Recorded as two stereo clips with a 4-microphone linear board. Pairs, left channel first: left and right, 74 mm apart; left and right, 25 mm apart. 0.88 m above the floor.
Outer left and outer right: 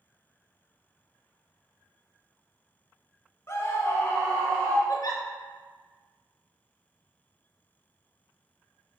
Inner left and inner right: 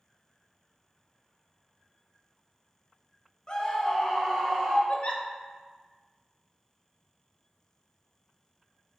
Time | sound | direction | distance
3.5 | a scream | 35° left (ahead or behind) | 0.8 m
4.9 | a giggle | 50° left (ahead or behind) | 0.6 m